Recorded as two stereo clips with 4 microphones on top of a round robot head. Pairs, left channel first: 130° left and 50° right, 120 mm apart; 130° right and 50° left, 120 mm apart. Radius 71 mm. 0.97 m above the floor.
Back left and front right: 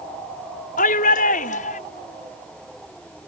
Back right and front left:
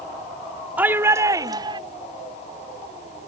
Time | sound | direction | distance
0.8 | a shout | 125° left | ?